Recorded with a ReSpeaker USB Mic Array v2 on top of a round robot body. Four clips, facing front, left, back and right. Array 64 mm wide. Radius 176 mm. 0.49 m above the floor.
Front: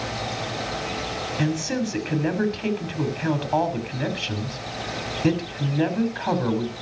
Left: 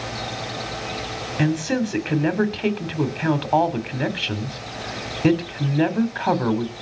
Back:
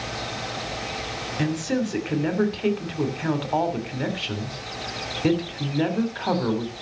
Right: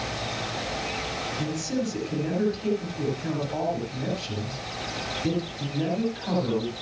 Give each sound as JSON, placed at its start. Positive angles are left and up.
{"t": 1.4, "sound": "a man speaking", "azimuth_deg": 95, "distance_m": 3.0}